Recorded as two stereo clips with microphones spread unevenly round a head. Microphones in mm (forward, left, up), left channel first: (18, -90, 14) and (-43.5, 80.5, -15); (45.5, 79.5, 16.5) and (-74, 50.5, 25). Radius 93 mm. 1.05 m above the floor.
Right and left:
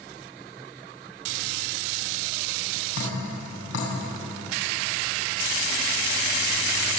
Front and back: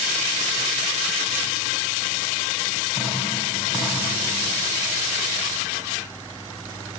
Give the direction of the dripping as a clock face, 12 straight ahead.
3 o'clock.